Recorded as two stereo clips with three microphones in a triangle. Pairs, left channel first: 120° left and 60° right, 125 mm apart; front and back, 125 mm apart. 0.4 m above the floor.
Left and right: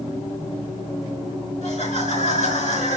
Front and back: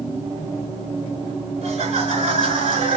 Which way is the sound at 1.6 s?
145° left.